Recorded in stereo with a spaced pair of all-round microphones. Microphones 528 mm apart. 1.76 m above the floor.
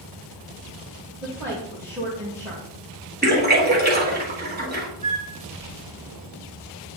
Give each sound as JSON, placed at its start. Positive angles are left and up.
{"t": 1.2, "sound": "a woman speaking", "side_deg": -5, "distance_m": 2.5}
{"t": 3.2, "sound": "a splash", "side_deg": -20, "distance_m": 2.5}
{"t": 5.0, "sound": "a flute", "side_deg": -45, "distance_m": 4.0}